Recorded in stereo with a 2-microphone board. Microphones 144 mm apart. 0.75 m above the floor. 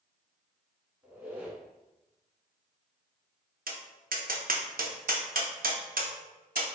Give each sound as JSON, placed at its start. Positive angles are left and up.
{"t": 1.0, "sound": "a squeak", "side_deg": -10, "distance_m": 0.8}
{"t": 3.7, "sound": "tapping", "side_deg": -80, "distance_m": 0.5}